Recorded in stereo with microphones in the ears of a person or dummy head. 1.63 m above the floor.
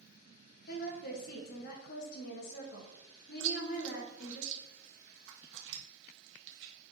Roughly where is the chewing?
Right.